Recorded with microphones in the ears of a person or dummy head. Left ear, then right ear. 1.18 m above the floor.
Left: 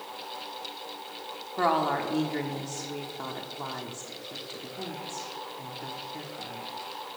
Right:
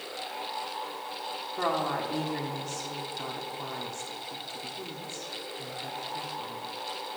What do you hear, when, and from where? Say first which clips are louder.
1.6 s a woman speaking: left 4 dB; 15° left (ahead or behind), 0.9 m